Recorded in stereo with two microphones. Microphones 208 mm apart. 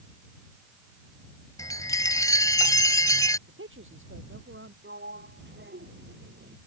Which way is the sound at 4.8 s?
60° right (ahead or behind).